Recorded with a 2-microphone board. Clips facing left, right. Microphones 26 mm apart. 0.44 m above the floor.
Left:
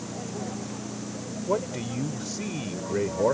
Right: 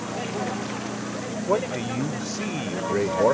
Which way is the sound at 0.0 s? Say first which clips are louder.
Right 6 dB; 65° right (ahead or behind).